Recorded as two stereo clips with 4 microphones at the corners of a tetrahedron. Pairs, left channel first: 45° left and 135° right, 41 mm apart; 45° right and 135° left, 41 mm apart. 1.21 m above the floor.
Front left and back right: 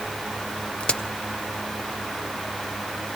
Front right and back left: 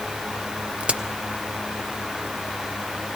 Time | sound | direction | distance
0.8 | a crack | 90° left | 0.6 m